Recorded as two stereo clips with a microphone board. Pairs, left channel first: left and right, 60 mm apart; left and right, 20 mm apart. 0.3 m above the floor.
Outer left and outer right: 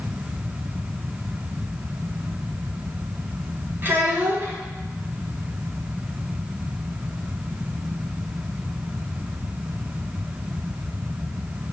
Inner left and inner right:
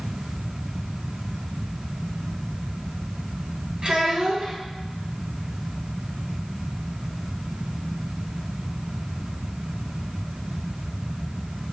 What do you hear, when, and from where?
3.8 s a child speaking: 40° right (ahead or behind), 1.8 m